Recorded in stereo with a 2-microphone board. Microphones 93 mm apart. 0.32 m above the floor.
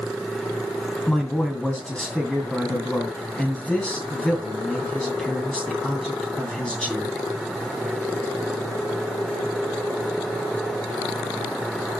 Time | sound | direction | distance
1.1 | a man speaking | 10° left (ahead or behind) | 2.5 m